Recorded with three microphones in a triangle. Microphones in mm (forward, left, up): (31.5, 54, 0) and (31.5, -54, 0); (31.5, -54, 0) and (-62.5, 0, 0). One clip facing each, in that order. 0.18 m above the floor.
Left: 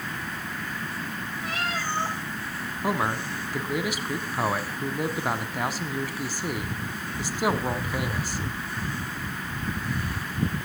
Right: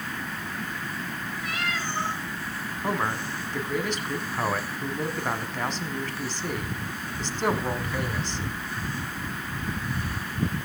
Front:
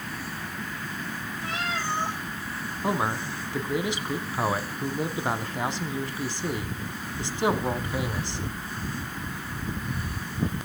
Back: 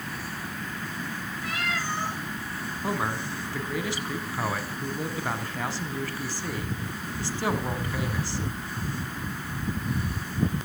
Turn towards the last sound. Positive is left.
turn(degrees=15)